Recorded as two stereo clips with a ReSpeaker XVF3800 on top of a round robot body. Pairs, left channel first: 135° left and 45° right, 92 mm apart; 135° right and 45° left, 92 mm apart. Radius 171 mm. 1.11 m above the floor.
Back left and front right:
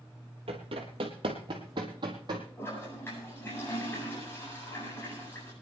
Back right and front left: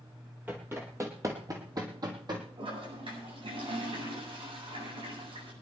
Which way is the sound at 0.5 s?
25° right.